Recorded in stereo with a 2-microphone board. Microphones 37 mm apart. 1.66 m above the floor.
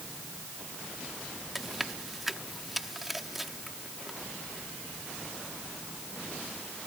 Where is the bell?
No bell in this recording.